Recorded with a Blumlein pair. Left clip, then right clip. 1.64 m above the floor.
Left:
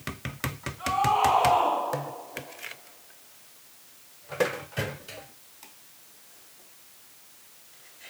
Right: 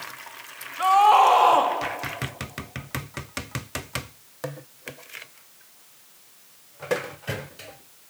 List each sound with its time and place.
0.8 s a scream: 55° right, 4 m